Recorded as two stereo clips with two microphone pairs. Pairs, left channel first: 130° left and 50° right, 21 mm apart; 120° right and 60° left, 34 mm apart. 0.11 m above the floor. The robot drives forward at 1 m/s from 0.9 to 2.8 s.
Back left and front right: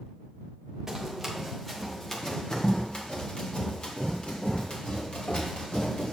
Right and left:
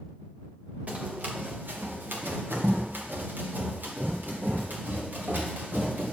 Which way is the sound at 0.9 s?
20° left.